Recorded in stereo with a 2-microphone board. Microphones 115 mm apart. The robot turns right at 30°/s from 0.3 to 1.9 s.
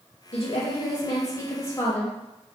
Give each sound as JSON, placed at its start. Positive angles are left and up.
{"t": 0.3, "sound": "a woman speaking", "azimuth_deg": 115, "distance_m": 0.5}